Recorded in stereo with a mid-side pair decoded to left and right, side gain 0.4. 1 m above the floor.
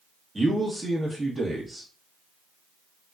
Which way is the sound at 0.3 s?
15° right.